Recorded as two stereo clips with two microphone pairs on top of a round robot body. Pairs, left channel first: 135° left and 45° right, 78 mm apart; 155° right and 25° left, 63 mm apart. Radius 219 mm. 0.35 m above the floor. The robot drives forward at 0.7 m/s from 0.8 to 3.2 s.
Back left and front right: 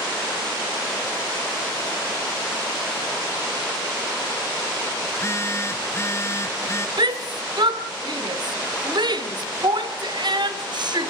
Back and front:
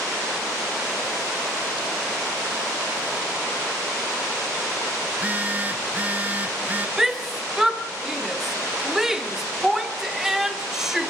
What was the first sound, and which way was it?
A phone buzzing, 95° left.